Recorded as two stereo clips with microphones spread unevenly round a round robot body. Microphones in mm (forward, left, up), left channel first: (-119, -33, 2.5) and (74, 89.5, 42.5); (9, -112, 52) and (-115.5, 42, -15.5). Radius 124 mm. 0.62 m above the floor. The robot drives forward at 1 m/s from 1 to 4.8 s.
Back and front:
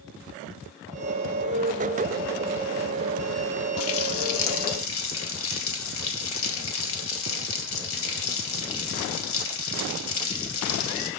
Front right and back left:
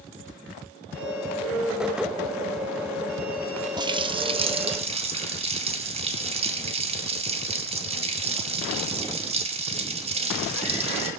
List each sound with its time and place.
3.8 s a running tap: 165° right, 1.0 m; by 11.1 s 175° right, 2 m